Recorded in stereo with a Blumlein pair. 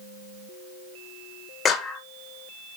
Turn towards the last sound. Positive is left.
turn(degrees=20)